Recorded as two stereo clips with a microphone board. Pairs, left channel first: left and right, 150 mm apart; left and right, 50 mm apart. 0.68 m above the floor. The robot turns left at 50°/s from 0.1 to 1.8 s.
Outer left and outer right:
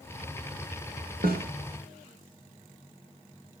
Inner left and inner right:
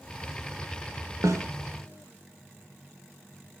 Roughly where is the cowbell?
No cowbell in this recording.